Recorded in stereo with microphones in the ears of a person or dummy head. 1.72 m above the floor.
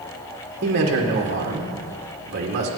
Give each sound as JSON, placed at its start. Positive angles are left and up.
{"t": 0.6, "sound": "a man speaking", "side_deg": -50, "distance_m": 2.0}